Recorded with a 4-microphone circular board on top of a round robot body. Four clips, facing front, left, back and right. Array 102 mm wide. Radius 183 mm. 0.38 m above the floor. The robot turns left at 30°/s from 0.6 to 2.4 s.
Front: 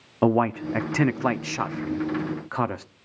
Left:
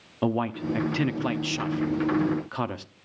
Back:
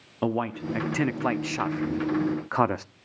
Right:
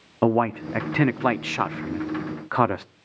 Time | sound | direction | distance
0.2 | a man speaking | 55° right | 0.9 m